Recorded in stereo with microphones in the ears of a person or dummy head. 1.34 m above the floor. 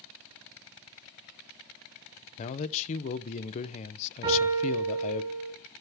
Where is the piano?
30° right (ahead or behind), 8 m.